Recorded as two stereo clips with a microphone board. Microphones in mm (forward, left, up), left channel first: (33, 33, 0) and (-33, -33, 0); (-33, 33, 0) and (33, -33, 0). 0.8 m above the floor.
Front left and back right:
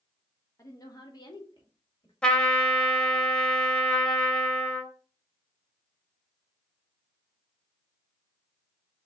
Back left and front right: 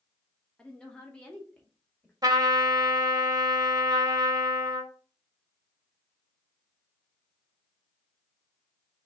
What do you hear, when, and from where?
0.6 s a woman speaking: 65° left, 1.0 m; by 2.1 s 60° left, 1.6 m
2.2 s a trumpet: 30° right, 0.7 m